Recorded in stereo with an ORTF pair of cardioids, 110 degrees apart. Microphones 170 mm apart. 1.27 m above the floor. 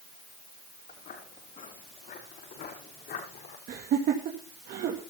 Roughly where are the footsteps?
Ahead left.